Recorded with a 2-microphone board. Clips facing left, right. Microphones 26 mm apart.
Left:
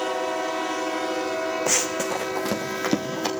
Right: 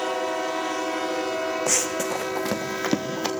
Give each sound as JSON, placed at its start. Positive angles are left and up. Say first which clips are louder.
{"t": 1.7, "sound": "running footsteps", "louder": "left 1 dB", "side_deg": 5, "distance_m": 0.9}